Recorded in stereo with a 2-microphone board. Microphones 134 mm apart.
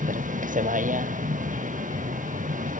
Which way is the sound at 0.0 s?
75° right (ahead or behind).